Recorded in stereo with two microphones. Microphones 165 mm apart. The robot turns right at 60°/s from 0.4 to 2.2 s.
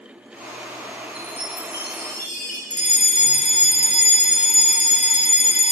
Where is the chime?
65° left, 6 m; by 2.6 s 130° left, 6 m.